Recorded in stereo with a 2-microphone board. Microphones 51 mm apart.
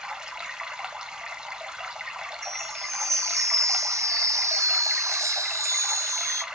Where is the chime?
75° right (ahead or behind), 0.6 m.